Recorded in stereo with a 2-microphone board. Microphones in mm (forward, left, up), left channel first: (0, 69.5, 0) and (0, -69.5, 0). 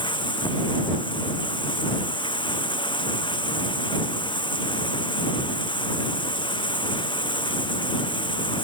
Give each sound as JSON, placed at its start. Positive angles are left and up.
{"t": 0.0, "sound": "running water", "side_deg": 35}